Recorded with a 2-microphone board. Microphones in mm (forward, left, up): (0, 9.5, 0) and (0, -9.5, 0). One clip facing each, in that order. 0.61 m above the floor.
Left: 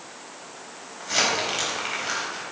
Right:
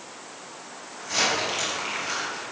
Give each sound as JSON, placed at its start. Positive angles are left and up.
{"t": 1.0, "sound": "crumpling", "side_deg": 20, "distance_m": 4.0}